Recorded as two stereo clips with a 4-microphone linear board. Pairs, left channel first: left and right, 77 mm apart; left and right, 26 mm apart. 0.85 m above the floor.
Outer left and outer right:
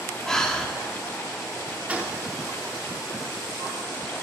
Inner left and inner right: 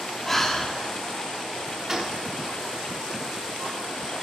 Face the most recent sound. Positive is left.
turn(degrees=-20)  # may be behind; listen again after turning